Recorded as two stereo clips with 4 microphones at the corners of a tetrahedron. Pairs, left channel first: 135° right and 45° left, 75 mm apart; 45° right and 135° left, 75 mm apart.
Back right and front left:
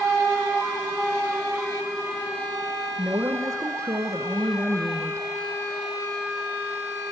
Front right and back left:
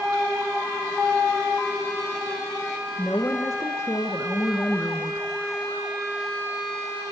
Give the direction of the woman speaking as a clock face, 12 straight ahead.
12 o'clock.